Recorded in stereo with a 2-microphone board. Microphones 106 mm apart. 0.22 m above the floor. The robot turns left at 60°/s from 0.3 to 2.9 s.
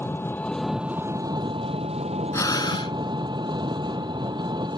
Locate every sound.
0.0 s an engine running: 20° left; by 4.8 s 135° right
2.3 s breathing: 150° left; by 3.0 s 115° left